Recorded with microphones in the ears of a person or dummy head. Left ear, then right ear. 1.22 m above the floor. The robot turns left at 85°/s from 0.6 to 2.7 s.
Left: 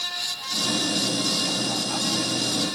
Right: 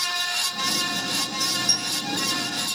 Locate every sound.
1.7 s a dropped coin: 45° right (ahead or behind); by 2.0 s 70° right (ahead or behind)